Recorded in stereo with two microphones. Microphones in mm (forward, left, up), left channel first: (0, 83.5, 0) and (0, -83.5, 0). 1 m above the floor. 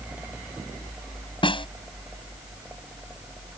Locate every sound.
1.4 s a snare drum: 30° left (ahead or behind)